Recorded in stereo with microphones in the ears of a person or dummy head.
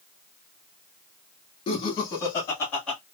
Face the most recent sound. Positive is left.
turn(degrees=5)  # may be behind; listen again after turning